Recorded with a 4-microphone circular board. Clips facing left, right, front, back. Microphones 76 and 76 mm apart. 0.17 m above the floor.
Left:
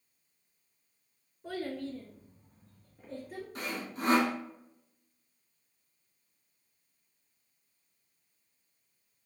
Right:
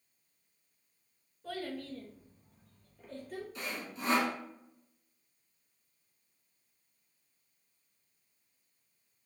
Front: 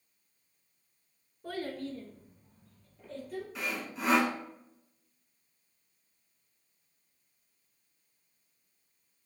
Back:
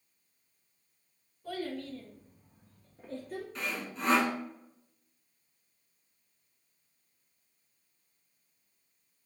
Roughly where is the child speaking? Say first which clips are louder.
Left 3 dB, even; ahead.